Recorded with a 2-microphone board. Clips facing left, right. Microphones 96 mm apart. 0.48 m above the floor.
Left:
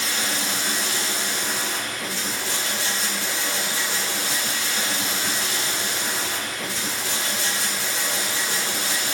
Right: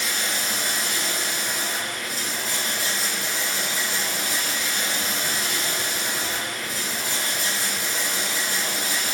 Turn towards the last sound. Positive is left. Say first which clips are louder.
# left 1 dB
turn(degrees=85)